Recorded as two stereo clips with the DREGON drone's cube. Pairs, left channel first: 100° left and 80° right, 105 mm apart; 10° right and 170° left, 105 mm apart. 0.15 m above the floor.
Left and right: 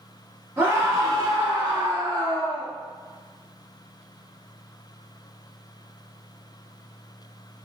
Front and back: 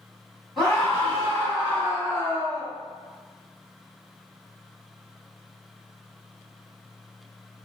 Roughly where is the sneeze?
No sneeze in this recording.